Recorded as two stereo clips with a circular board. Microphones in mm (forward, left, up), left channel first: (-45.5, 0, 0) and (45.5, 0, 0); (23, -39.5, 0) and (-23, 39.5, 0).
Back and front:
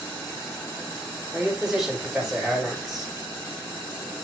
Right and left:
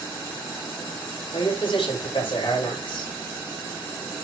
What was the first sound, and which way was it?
A man speaking, 85° right.